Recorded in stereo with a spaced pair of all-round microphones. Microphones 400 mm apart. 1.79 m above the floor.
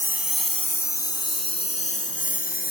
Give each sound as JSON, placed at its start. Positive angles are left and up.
{"t": 0.0, "sound": "a lawn mower", "side_deg": -5}